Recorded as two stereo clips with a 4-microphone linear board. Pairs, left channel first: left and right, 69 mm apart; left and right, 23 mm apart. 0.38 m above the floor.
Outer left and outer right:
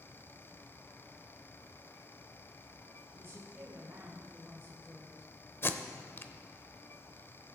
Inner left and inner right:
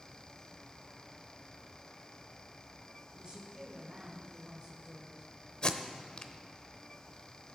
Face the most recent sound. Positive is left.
turn(degrees=35)  # may be behind; listen again after turning